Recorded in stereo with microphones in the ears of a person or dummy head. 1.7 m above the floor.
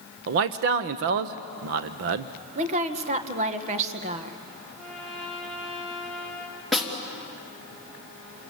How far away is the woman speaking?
About 1.6 m.